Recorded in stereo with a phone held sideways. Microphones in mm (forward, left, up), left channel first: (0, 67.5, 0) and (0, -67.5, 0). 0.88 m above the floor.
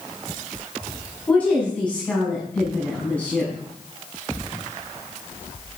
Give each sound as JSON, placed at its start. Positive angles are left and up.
{"t": 1.3, "sound": "a woman speaking", "side_deg": 10, "distance_m": 7.5}